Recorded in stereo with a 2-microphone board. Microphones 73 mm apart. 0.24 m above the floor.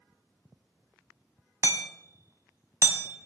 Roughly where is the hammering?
Right.